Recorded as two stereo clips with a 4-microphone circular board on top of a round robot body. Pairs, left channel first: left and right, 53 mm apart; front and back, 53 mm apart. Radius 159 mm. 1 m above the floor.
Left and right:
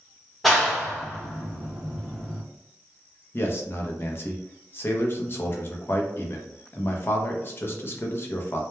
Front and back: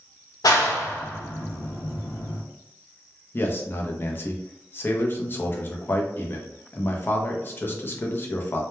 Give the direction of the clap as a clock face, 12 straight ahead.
12 o'clock.